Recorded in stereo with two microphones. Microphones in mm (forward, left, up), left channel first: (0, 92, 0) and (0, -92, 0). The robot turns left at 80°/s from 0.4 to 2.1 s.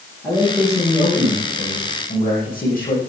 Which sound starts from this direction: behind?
A man speaking, at 0.2 s.